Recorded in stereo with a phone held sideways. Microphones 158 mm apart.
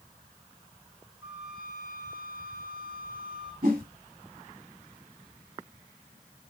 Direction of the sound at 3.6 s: 55° right (ahead or behind).